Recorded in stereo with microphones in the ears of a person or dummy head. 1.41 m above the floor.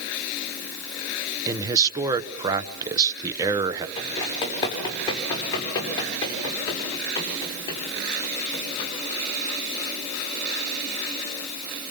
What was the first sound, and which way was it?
A man speaking, 20° right (ahead or behind).